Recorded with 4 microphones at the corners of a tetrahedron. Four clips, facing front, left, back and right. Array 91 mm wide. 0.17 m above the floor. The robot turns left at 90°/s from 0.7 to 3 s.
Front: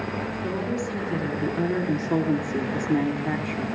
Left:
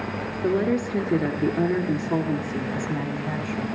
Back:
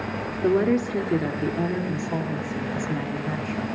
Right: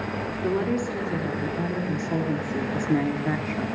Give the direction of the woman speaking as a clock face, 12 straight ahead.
7 o'clock.